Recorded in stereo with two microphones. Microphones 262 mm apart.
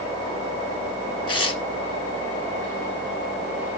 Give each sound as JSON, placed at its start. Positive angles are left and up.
{"t": 1.3, "sound": "tearing paper", "side_deg": 60, "distance_m": 0.9}